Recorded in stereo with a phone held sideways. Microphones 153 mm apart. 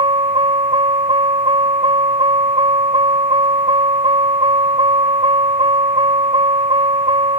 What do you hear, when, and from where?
0.0 s a vehicle: 35° right (ahead or behind)